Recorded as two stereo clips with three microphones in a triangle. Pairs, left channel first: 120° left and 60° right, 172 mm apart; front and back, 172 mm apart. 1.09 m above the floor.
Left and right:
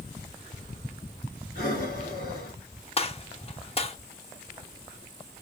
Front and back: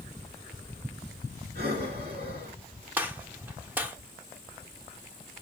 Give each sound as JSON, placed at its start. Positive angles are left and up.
{"t": 1.6, "sound": "breathing", "azimuth_deg": 155, "distance_m": 2.5}
{"t": 3.0, "sound": "a gunshot", "azimuth_deg": 110, "distance_m": 0.7}